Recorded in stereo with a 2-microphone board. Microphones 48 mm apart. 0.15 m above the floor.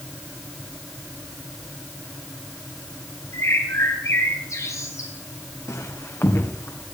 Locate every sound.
3.3 s a bird: 80° left, 5.5 m
5.7 s footsteps: 75° left (ahead or behind), 4 m; by 6.8 s 65° left (ahead or behind), 4.5 m